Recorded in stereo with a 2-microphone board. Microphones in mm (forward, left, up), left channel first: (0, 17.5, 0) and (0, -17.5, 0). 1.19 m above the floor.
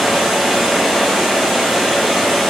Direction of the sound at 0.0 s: Centre (ahead or behind).